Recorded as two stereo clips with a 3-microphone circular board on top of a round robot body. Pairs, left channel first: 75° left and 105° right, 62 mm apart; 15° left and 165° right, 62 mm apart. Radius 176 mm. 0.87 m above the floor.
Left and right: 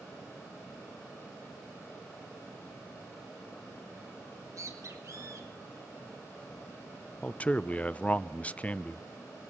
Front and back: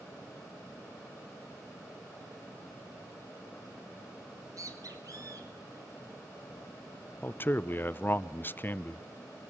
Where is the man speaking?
25° left, 0.9 m.